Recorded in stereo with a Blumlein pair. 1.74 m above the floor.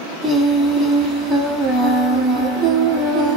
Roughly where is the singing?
Ahead.